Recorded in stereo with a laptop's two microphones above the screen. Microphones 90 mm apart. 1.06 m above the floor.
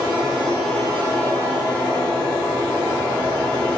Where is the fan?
10° left (ahead or behind), 1.2 m.